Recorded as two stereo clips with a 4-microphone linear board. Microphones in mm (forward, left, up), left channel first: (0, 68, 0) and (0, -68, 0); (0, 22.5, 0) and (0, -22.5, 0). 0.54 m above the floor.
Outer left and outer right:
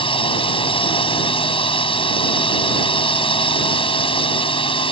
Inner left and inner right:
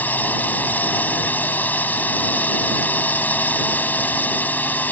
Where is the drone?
40° left (ahead or behind).